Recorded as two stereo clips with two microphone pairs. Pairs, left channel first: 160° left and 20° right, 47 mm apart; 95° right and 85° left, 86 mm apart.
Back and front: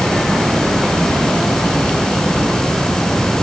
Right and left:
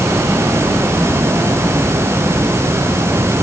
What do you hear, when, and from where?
Only background noise.